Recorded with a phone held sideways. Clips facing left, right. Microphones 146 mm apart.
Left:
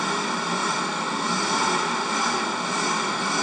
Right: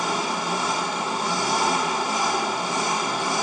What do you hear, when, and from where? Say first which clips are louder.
0.0 s an engine running: right 1 dB; 15° right (ahead or behind), 1.3 m